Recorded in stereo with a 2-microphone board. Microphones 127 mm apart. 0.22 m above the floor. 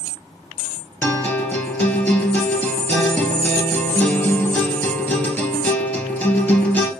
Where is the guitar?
15° left (ahead or behind), 2.5 m.